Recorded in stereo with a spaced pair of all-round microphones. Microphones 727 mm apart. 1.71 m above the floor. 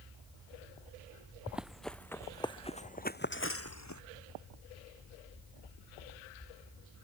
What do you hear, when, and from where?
1.5 s running footsteps: centre (ahead or behind); by 4.0 s 25° left (ahead or behind)